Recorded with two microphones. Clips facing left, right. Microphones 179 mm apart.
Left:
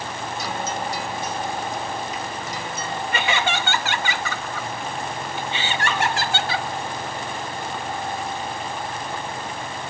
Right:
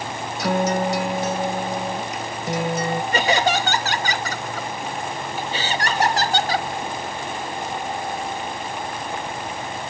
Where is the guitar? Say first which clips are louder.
Right 10 dB; 80° right.